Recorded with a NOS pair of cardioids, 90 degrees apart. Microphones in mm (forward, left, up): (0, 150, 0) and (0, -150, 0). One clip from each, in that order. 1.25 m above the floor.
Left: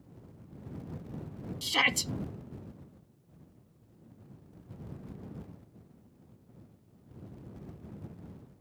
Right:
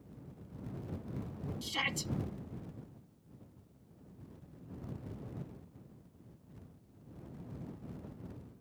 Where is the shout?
60° left.